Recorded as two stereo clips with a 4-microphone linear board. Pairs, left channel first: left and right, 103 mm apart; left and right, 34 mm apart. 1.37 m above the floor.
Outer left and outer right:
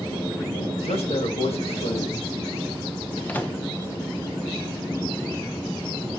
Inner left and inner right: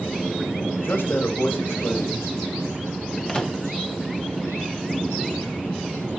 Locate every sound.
0.8 s a man speaking: 80° left, 2 m
3.3 s a microwave: 20° left (ahead or behind), 1.1 m